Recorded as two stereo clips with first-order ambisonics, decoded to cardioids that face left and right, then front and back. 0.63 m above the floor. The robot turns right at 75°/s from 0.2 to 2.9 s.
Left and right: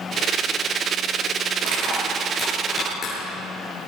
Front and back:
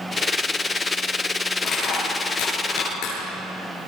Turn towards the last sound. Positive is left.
turn(degrees=25)